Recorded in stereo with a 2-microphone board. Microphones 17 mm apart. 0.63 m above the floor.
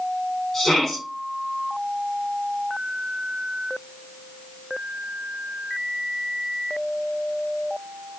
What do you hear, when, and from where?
0.5 s a shout: 20° left (ahead or behind), 9.5 m